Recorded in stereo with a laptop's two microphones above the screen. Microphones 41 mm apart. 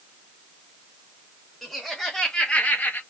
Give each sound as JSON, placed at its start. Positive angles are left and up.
{"t": 1.6, "sound": "laughter", "side_deg": 5, "distance_m": 2.5}